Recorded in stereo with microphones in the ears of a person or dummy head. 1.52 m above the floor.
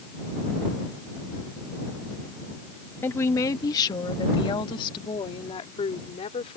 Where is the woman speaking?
15° left (ahead or behind); by 6.6 s 40° left (ahead or behind).